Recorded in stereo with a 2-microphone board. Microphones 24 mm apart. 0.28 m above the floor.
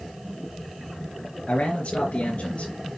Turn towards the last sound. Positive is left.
turn(degrees=70)  # may be behind; listen again after turning